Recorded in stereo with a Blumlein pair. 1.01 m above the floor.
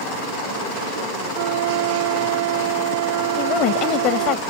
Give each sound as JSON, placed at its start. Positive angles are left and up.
{"t": 1.3, "sound": "a flute", "azimuth_deg": -55}
{"t": 3.4, "sound": "a woman speaking", "azimuth_deg": 35}